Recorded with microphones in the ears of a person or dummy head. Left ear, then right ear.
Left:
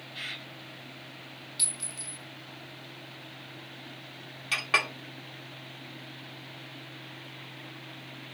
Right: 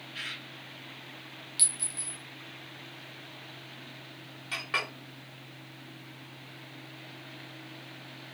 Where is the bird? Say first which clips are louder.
Even; 45° right (ahead or behind), 2 m.